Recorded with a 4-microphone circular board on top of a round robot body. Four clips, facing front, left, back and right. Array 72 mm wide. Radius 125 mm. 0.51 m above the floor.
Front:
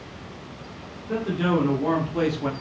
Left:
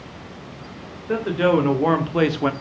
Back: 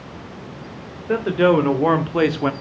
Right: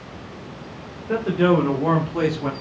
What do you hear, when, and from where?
1.1 s a man speaking: 175° left, 2.5 m; by 2.5 s 145° left, 1.3 m